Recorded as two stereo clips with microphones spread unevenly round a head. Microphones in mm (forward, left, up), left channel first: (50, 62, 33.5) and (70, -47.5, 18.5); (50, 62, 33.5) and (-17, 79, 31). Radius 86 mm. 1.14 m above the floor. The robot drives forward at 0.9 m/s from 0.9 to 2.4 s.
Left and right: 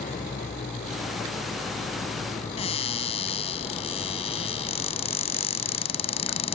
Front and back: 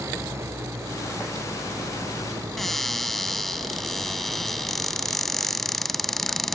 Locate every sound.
0.0 s an engine running: 120° left; by 6.6 s 130° left
2.6 s a cupboard door: 70° left